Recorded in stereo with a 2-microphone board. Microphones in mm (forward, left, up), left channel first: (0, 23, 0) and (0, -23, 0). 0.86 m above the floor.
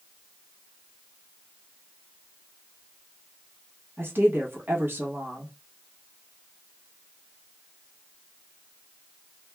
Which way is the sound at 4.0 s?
55° right (ahead or behind).